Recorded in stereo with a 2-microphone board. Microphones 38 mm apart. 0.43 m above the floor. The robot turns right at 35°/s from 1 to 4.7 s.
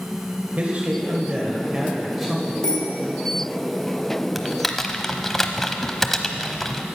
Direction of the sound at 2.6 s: 30° left (ahead or behind).